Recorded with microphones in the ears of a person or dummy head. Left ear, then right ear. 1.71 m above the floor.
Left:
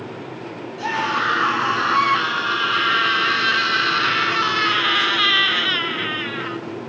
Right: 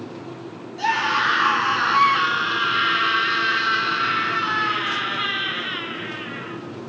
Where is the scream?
20° right (ahead or behind), 4 m; by 6.6 s 45° left (ahead or behind), 3.5 m.